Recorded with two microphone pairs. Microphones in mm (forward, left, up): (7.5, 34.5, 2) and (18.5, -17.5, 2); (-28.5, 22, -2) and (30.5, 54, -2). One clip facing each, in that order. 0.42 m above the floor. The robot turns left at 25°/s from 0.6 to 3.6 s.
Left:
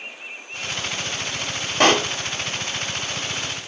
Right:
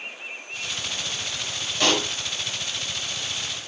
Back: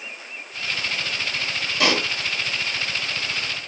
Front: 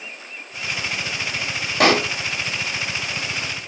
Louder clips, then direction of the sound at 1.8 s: Left 6 dB, front 6 dB; 65° left.